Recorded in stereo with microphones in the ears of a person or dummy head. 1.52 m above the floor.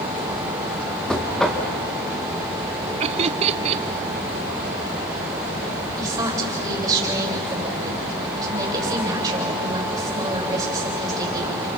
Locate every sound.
1.1 s knocking: centre (ahead or behind), 1.7 m
3.0 s laughter: 30° right (ahead or behind), 0.8 m
6.0 s a woman speaking: 15° right (ahead or behind), 7.5 m